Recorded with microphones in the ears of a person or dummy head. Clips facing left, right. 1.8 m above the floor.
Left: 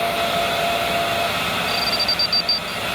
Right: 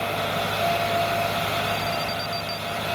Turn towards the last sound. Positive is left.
turn(degrees=80)